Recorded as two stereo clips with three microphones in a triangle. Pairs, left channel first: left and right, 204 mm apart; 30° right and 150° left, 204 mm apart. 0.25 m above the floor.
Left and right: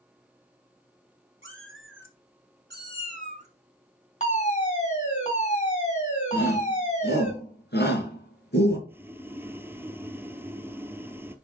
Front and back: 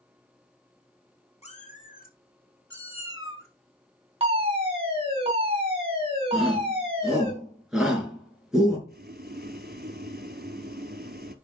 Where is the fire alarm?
110° left, 3 m.